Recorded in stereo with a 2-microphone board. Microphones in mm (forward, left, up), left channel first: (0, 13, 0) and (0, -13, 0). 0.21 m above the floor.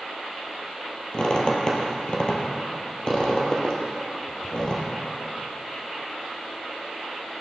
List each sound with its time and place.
1.1 s a squeak: 35° left (ahead or behind), 2.5 m